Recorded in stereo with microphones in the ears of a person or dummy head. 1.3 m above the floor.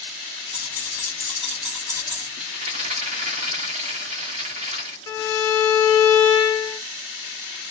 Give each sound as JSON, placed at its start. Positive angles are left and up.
{"t": 0.5, "sound": "keys jangling", "side_deg": 25, "distance_m": 1.3}
{"t": 2.4, "sound": "a rattle", "side_deg": -40, "distance_m": 0.8}
{"t": 5.1, "sound": "a violin", "side_deg": 25, "distance_m": 1.2}